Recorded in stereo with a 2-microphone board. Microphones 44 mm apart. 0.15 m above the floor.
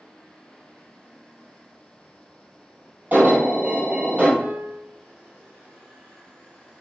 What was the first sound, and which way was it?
An alarm, 35° right (ahead or behind).